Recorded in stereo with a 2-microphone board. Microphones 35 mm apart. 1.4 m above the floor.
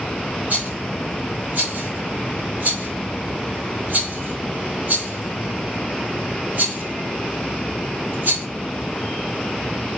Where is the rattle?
60° right (ahead or behind), 1.7 m.